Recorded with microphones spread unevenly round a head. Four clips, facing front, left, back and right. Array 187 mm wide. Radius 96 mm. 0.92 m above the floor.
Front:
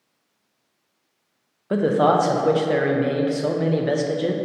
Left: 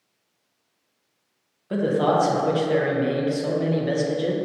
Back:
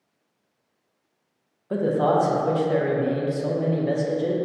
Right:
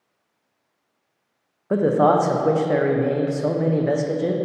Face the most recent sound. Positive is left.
turn(degrees=-35)